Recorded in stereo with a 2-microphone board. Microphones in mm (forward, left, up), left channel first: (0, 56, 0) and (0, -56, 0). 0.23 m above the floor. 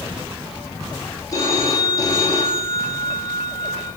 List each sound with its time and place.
1.3 s a phone ringing: 35° left (ahead or behind), 6.5 m